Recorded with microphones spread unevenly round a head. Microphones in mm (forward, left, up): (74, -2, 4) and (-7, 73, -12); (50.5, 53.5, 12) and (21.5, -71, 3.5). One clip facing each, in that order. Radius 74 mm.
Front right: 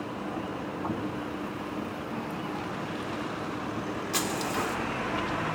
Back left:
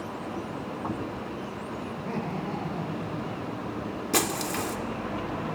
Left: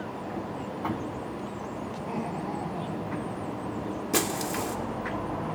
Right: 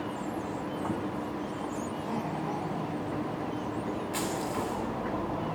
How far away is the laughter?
About 5.5 m.